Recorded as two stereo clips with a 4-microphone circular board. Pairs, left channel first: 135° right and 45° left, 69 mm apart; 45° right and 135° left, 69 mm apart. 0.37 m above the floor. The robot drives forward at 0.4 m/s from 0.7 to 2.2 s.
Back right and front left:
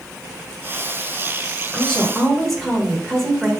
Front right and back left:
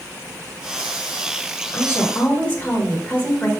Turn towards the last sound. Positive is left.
turn(degrees=-55)